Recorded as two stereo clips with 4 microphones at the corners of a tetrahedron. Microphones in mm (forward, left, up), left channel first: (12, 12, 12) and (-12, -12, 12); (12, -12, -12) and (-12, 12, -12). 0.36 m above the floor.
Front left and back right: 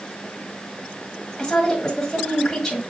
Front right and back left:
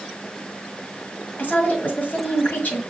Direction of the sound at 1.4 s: 30° right.